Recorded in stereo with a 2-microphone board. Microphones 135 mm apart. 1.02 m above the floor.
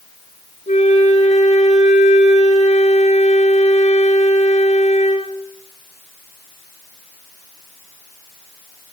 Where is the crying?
I don't hear crying.